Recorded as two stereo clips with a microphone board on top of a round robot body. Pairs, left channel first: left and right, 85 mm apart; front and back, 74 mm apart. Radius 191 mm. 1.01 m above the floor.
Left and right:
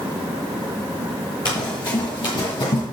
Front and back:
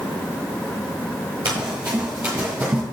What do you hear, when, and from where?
1.4 s running footsteps: 120° left, 1.4 m; by 2.8 s 110° left, 3 m